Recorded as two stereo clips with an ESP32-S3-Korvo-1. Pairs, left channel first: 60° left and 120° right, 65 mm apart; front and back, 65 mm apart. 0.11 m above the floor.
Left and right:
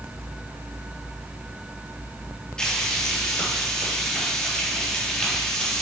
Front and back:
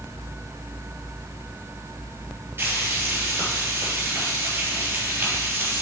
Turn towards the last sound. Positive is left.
turn(degrees=135)